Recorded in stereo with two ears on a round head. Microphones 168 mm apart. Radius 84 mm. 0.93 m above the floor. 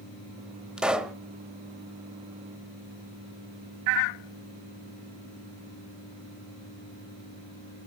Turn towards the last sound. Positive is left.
turn(degrees=-5)  # may be behind; listen again after turning